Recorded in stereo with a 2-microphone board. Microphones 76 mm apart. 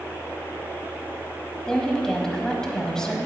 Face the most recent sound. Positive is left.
turn(degrees=10)  # may be behind; listen again after turning